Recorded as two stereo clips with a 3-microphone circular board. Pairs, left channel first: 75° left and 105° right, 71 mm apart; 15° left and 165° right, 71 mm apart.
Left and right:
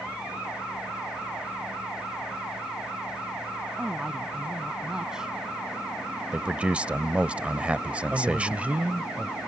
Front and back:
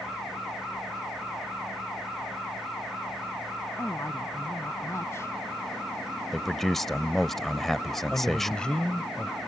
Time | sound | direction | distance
3.8 | a woman speaking | 25° right | ?
6.3 | a man speaking | 65° right | ?
8.1 | a man speaking | 50° right | ?